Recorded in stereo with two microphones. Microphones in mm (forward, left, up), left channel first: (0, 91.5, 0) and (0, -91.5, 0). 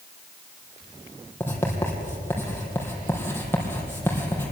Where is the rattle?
I don't hear a rattle.